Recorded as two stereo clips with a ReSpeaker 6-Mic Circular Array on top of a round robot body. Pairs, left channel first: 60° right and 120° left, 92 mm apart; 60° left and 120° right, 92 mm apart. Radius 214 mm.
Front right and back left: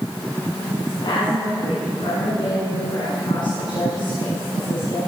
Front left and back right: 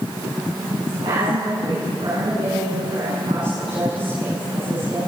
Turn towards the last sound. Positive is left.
turn(degrees=-95)